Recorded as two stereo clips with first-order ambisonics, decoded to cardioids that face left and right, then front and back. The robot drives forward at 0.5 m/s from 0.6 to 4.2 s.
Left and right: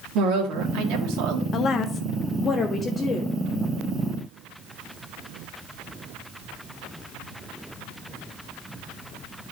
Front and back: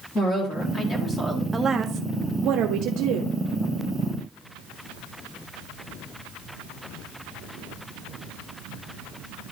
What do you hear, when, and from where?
0.1 s a woman speaking: 70° right, 1.8 m; by 1.4 s 85° right, 1.7 m
1.5 s a woman speaking: 105° left, 0.5 m; by 3.4 s 165° left, 1.1 m